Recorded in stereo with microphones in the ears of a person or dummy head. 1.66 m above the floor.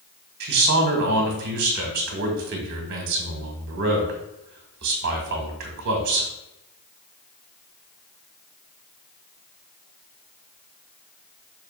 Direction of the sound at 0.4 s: 50° right (ahead or behind).